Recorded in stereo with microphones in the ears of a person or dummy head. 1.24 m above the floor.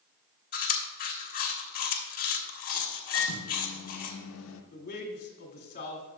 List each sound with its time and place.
0.5 s chewing: 40° left (ahead or behind), 1.3 m
3.1 s a microwave: 75° left (ahead or behind), 0.9 m
4.7 s a man speaking: 40° left (ahead or behind), 2.0 m